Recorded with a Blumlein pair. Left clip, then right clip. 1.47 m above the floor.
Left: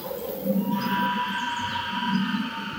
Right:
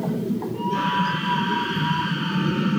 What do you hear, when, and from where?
0.5 s a scream: 60° right, 8.5 m